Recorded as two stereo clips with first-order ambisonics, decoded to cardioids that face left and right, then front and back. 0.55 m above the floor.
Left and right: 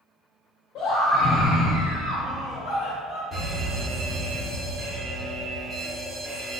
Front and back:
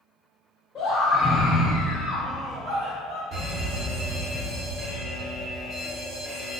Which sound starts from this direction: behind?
A fire alarm, at 3.3 s.